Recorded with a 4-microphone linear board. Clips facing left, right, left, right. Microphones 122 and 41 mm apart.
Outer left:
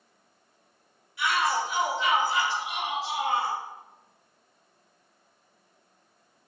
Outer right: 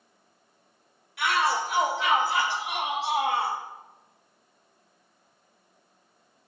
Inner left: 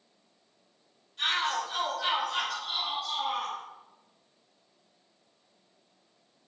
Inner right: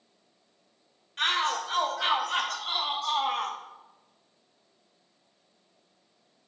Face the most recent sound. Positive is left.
turn(degrees=-65)  # may be behind; listen again after turning